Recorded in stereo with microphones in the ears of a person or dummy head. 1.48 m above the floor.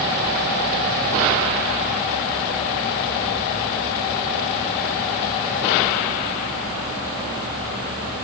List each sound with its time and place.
Only background noise.